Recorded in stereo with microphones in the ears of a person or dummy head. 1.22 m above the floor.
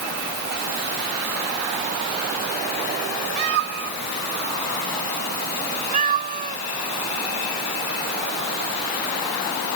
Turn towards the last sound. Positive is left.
turn(degrees=-40)  # may be behind; listen again after turning